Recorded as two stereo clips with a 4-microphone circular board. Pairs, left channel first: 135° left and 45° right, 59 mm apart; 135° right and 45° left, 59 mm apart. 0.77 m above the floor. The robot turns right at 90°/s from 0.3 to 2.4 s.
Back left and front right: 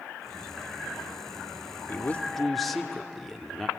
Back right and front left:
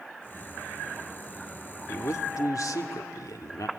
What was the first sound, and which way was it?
A man speaking, straight behind.